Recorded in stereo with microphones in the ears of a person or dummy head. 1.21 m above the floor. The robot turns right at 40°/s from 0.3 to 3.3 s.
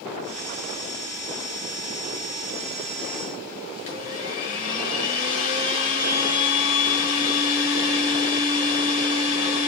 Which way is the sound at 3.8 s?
40° left (ahead or behind).